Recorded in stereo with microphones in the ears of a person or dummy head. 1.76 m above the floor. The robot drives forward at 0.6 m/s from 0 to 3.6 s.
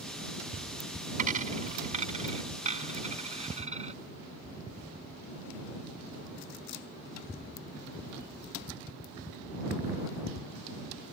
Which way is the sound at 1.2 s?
45° right (ahead or behind).